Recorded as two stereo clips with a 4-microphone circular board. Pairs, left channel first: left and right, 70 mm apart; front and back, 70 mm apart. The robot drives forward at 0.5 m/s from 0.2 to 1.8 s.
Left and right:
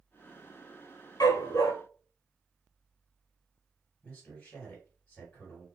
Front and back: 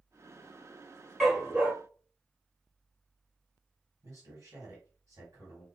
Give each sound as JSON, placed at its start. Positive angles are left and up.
{"t": 1.2, "sound": "a dog barking", "azimuth_deg": 90, "distance_m": 0.7}
{"t": 4.0, "sound": "a man speaking", "azimuth_deg": 165, "distance_m": 2.0}